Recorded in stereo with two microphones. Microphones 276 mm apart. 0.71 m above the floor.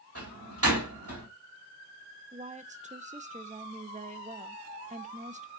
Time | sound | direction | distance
0.1 | a door slam | 50° right (ahead or behind) | 4.5 m
2.3 | a woman speaking | 25° right (ahead or behind) | 0.7 m